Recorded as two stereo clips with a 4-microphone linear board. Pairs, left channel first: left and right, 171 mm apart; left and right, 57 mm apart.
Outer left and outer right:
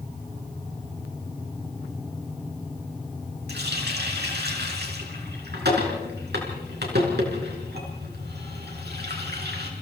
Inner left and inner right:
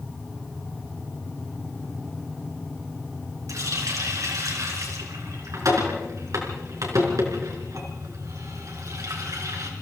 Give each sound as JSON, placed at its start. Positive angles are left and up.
{"t": 3.5, "sound": "a running tap", "side_deg": -75, "distance_m": 4.5}